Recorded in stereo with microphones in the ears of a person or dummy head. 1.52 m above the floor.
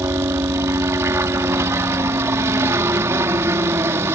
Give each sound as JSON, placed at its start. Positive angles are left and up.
{"t": 0.0, "sound": "a helicopter", "side_deg": -15}